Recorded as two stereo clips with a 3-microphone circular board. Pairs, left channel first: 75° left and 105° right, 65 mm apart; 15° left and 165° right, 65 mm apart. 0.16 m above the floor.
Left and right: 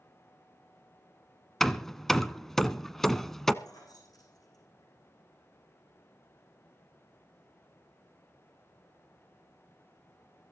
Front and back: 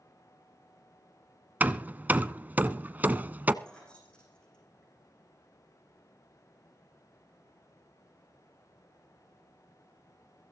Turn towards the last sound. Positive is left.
turn(degrees=90)